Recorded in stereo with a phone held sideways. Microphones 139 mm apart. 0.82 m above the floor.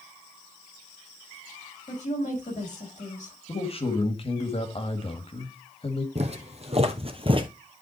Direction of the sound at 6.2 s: 50° right (ahead or behind).